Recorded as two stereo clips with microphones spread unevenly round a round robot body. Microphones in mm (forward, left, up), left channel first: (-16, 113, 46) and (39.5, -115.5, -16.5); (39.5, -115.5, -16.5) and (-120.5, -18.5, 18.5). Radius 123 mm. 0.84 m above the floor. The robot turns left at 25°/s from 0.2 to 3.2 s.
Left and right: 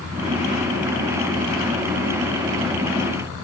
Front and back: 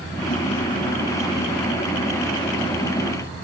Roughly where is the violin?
No violin in this recording.